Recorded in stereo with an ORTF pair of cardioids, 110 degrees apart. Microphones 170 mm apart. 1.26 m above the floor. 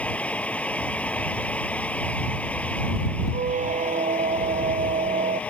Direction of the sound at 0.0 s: 10° left.